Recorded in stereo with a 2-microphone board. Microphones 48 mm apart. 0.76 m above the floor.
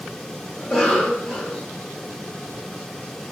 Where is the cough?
10° left (ahead or behind), 0.5 m.